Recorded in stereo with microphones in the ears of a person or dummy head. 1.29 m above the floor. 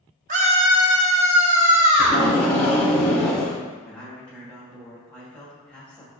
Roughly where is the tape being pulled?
Centre.